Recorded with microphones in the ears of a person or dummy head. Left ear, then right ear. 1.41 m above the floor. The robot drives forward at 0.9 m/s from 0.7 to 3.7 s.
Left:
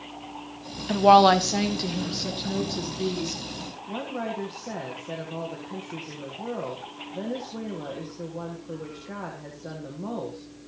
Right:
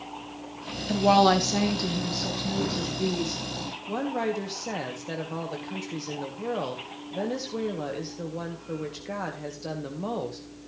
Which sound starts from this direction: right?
A woman speaking, at 3.9 s.